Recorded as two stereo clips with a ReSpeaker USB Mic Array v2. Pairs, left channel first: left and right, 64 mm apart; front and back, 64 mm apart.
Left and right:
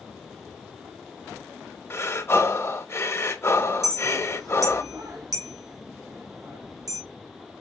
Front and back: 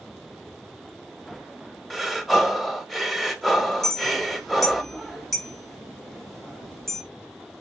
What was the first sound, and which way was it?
Breathing, 95° left.